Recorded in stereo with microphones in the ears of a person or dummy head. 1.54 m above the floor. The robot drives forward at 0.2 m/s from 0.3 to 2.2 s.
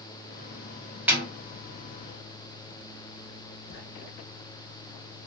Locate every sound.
1.1 s a snare drum: 5° right (ahead or behind), 1.3 m
3.7 s writing: 60° left (ahead or behind), 0.9 m